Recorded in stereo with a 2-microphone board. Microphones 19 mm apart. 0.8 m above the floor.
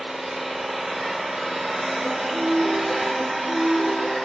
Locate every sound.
0.0 s an engine running: 30° right (ahead or behind), 1.2 m
2.0 s a piano: 80° right, 2.5 m